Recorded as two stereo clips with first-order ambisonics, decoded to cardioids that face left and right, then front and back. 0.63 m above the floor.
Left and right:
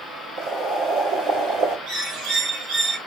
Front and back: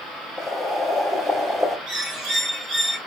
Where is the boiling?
100° right, 2 m.